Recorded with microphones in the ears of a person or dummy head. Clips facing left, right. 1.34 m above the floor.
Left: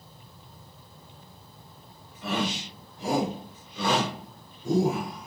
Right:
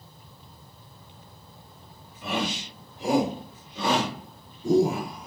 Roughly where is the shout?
Centre.